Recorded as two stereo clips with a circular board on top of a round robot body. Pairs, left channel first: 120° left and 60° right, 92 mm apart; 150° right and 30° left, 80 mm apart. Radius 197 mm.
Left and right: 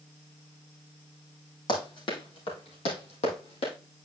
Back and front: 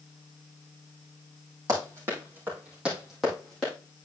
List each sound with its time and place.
1.7 s running footsteps: 80° left, 3 m; by 3.7 s 135° left, 3 m